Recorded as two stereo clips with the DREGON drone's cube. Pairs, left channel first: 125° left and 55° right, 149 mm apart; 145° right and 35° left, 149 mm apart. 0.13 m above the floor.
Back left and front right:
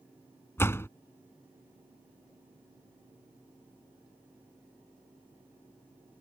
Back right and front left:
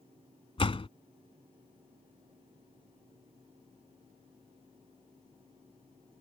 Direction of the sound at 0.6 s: 170° right.